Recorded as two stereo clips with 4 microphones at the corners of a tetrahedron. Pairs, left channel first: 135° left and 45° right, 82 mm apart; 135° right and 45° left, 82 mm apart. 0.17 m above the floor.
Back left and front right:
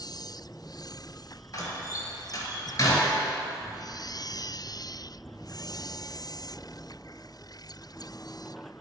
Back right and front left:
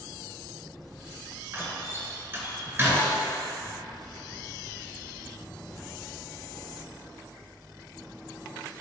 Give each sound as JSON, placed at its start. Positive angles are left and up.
{"t": 1.5, "sound": "a door slam", "azimuth_deg": 100, "distance_m": 1.8}